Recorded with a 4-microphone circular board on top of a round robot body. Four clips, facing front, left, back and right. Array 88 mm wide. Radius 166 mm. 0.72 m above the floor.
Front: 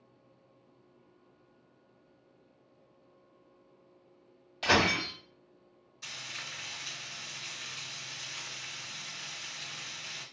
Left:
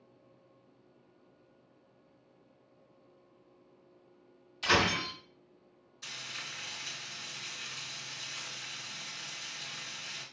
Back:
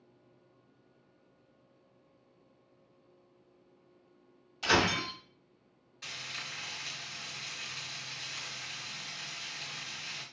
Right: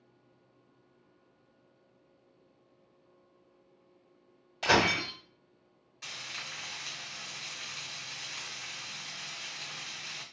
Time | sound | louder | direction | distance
4.6 | breaking glass | right 3 dB, front 1 dB | 65° right | 1.5 m
6.0 | frying | right 1 dB, back 1 dB | 115° right | 1.4 m